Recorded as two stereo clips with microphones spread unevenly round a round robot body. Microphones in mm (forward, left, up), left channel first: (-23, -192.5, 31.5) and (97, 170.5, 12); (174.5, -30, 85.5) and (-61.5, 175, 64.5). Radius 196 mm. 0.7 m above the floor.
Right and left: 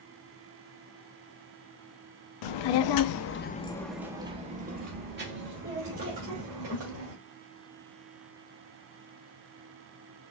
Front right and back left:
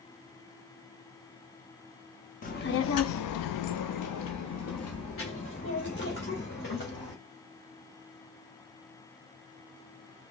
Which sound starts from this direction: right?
A child speaking, at 2.4 s.